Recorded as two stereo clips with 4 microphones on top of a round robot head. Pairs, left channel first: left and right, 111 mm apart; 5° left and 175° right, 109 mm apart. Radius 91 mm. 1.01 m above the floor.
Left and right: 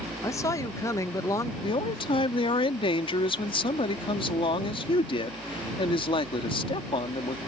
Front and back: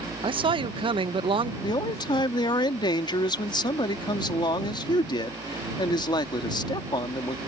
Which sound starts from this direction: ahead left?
A man speaking, at 1.6 s.